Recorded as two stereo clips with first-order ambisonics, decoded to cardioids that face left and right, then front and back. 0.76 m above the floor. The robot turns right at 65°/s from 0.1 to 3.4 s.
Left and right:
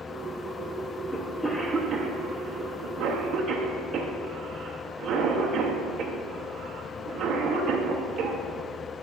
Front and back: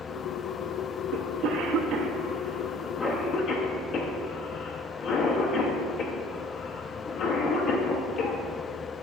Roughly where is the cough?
Behind.